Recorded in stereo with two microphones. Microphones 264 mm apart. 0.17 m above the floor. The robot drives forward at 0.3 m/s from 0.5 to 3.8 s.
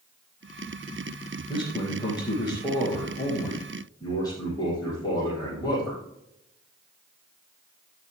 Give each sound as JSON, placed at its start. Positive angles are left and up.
{"t": 1.5, "sound": "a man speaking", "side_deg": 15, "distance_m": 5.0}